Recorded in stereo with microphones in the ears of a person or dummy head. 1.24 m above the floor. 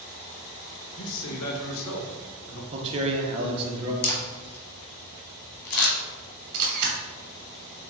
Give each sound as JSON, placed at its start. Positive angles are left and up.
{"t": 1.0, "sound": "a man speaking", "side_deg": 80, "distance_m": 1.0}
{"t": 2.7, "sound": "a man speaking", "side_deg": -35, "distance_m": 0.9}
{"t": 4.0, "sound": "a camera shutter", "side_deg": 55, "distance_m": 1.1}
{"t": 6.5, "sound": "a camera shutter", "side_deg": -55, "distance_m": 1.2}